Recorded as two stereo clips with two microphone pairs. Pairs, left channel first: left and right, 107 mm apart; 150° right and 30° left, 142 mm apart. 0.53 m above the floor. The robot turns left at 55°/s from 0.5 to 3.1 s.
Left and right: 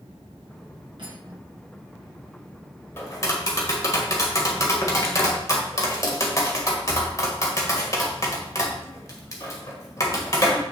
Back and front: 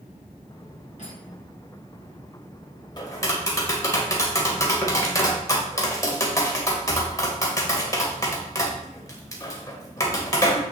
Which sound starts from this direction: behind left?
Tapping, at 3.0 s.